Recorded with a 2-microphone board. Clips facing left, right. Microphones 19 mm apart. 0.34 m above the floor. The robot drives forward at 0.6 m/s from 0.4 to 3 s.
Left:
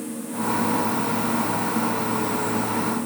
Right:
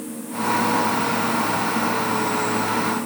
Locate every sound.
Only background noise.